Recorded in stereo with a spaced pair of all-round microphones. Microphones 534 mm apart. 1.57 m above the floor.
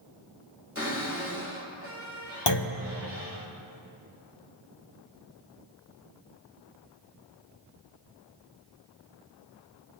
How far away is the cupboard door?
About 2 m.